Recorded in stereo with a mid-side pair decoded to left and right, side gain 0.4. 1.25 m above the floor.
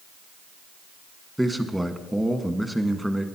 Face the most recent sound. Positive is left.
turn(degrees=-5)